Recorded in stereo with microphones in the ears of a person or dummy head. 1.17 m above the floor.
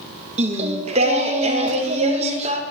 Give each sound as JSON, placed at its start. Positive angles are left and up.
{"t": 0.4, "sound": "singing", "side_deg": -25, "distance_m": 0.6}